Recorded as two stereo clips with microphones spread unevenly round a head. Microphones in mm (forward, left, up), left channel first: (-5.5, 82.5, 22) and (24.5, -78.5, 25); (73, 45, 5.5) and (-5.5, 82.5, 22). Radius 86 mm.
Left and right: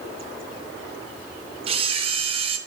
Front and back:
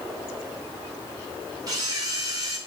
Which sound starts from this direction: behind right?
A camera shutter, at 1.7 s.